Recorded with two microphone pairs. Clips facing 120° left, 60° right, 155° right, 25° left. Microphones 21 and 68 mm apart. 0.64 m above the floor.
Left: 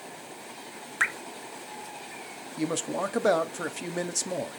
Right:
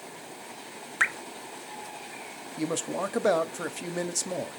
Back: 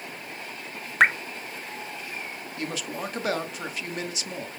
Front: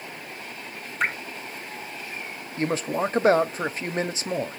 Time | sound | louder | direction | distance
1.0 | dripping | right 1 dB, back 7 dB | 150° right | 0.8 m
2.6 | a man speaking | left 1 dB, front 8 dB | 50° left | 0.7 m